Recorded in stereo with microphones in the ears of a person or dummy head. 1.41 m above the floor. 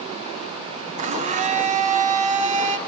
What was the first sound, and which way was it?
A blender, 35° right (ahead or behind).